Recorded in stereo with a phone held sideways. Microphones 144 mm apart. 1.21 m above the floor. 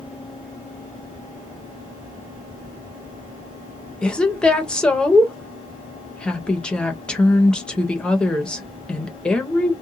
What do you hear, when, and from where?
4.0 s a woman speaking: 5° left (ahead or behind), 0.9 m